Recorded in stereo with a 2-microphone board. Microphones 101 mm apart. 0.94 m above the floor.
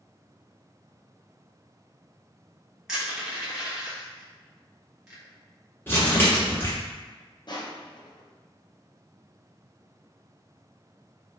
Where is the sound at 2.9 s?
5° right (ahead or behind), 1.4 m.